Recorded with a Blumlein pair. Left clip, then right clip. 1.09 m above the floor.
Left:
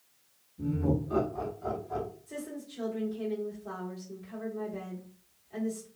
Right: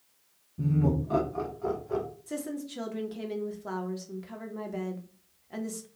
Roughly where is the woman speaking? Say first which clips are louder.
Right 4 dB; ahead right.